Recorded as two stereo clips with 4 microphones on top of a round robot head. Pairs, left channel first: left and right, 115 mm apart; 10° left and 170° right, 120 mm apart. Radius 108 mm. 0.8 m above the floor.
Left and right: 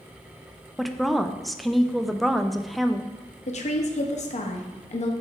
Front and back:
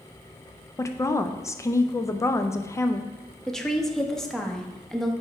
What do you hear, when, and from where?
0.8 s a woman speaking: straight ahead, 0.5 m
3.5 s a woman speaking: 95° left, 1.2 m